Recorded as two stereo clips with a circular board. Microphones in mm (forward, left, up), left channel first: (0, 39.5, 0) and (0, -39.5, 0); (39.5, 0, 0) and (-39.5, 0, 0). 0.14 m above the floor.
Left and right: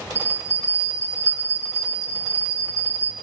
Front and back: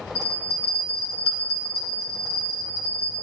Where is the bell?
50° right, 3.5 m.